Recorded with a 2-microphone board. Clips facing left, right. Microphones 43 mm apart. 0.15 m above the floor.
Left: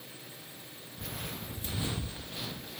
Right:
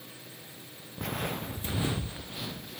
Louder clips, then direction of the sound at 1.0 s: Right 8 dB; 60° right (ahead or behind).